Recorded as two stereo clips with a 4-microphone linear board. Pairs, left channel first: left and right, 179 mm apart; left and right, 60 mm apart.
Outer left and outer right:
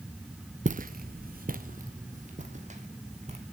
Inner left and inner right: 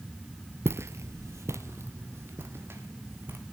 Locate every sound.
0.7 s footsteps: 45° right (ahead or behind), 0.5 m; by 3.4 s 40° right (ahead or behind), 2 m